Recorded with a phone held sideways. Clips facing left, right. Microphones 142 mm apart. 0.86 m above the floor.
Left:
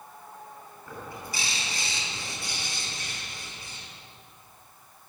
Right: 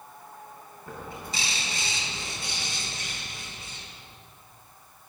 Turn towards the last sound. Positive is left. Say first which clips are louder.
# right 1 dB
turn(degrees=-25)  # may be behind; listen again after turning